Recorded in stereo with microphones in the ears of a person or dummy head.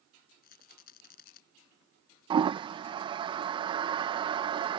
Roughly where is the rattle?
Left.